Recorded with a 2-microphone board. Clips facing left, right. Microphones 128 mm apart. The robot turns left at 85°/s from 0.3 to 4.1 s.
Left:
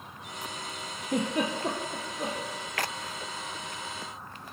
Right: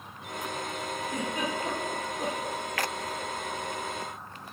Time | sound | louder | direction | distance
1.0 | a giggle | left 6 dB | 80° left | 1.3 m